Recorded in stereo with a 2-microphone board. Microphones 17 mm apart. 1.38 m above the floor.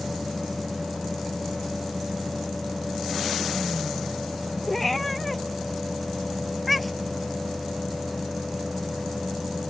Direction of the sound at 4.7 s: 10° left (ahead or behind).